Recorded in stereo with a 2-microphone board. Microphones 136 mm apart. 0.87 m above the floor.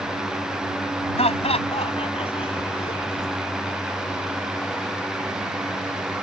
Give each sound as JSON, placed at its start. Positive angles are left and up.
{"t": 1.2, "sound": "laughter", "side_deg": 45}